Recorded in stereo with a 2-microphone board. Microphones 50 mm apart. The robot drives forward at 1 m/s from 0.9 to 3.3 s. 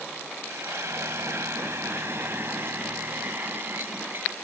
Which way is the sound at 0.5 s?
65° right (ahead or behind).